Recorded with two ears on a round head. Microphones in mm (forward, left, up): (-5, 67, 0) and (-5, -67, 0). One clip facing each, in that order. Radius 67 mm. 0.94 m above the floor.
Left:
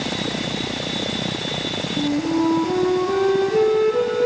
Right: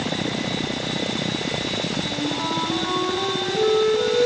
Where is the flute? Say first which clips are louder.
Left 7 dB; 70° left (ahead or behind), 4 m.